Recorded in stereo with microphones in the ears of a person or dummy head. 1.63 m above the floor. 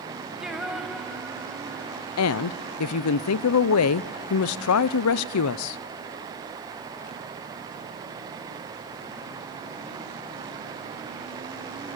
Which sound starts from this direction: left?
A woman speaking, at 2.2 s.